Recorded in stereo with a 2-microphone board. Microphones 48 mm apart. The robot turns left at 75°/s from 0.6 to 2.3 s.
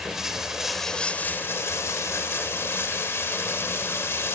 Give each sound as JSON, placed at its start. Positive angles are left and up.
{"t": 0.0, "sound": "running water", "azimuth_deg": -170, "distance_m": 2.0}